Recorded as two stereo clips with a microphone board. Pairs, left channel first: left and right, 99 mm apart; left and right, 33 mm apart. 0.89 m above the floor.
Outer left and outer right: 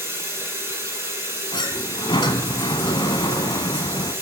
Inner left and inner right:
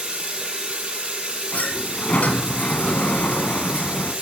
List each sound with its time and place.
0.0 s running water: 30° right (ahead or behind), 5.5 m
1.5 s a sliding door: 60° left (ahead or behind), 1.2 m